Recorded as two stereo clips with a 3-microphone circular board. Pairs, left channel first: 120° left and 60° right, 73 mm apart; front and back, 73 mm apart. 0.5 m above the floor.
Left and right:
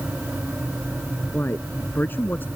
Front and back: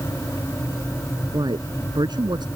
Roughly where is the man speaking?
Behind.